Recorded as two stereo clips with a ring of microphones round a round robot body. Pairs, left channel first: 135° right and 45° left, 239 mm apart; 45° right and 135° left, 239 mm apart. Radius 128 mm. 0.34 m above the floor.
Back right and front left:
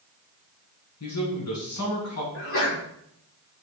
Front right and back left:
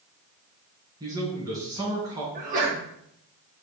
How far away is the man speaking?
About 3.5 m.